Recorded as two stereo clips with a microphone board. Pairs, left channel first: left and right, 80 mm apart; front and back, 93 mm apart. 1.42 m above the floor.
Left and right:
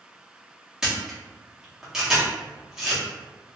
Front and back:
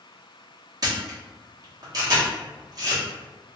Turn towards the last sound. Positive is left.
turn(degrees=-170)